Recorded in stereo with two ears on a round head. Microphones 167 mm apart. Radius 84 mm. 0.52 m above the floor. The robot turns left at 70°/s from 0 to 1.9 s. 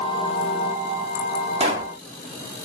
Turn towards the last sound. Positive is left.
turn(degrees=-25)  # may be behind; listen again after turning